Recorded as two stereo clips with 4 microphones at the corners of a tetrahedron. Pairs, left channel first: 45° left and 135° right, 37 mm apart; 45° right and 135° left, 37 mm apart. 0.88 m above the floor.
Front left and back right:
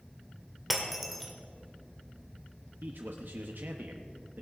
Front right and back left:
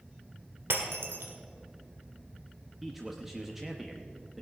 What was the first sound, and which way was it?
Breaking glass, 140° left.